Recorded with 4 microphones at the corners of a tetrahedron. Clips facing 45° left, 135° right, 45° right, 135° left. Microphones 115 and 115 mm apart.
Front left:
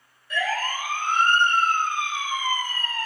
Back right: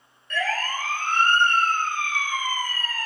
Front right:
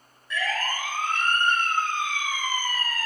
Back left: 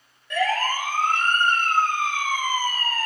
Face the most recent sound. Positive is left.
turn(degrees=105)